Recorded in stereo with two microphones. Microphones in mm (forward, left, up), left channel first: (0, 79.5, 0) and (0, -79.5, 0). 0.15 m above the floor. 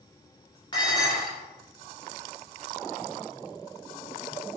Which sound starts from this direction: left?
Dishes clattering, at 0.7 s.